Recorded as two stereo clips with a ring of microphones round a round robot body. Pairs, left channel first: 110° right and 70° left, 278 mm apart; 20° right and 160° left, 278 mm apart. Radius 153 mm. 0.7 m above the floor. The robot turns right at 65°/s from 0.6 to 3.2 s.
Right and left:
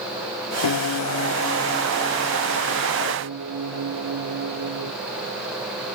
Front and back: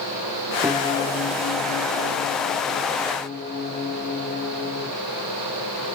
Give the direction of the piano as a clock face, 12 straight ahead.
4 o'clock.